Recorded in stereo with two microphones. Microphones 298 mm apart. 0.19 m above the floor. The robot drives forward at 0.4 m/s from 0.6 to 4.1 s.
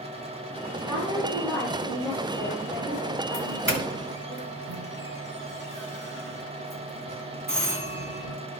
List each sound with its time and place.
0.8 s a woman speaking: 5° right (ahead or behind), 6 m
3.3 s a doorbell: 40° right (ahead or behind), 1.8 m